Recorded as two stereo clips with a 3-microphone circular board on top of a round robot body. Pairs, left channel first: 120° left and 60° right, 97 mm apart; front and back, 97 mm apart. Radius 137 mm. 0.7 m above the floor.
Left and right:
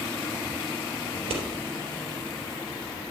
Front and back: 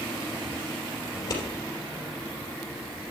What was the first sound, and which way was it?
Scissors, 55° right.